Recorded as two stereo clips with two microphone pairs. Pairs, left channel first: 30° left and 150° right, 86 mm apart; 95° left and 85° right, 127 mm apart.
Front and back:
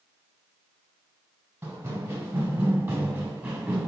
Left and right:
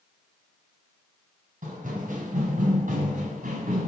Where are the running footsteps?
95° right, 3.5 m; by 3.9 s 80° right, 2 m.